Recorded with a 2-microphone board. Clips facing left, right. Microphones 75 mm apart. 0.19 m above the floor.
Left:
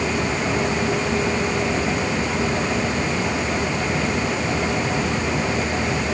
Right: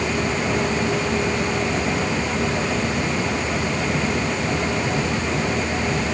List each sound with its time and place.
Only background noise.